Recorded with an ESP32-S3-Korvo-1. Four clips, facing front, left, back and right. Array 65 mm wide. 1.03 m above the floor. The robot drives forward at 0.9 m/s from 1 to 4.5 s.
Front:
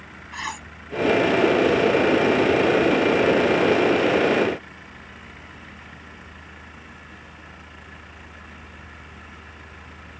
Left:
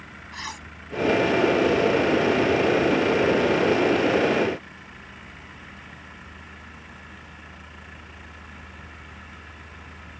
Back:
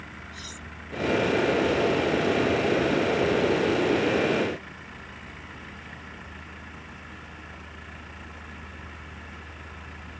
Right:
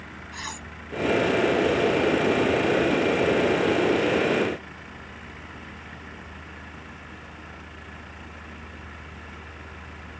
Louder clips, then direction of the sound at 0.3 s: Left 1 dB, front 10 dB; 5° left.